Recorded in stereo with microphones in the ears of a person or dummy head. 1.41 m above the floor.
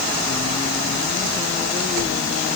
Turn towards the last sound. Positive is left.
No sound to turn to.